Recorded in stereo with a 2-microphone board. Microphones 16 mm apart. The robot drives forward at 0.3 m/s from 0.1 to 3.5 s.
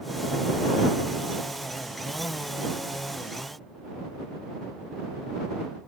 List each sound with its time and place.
Only background noise.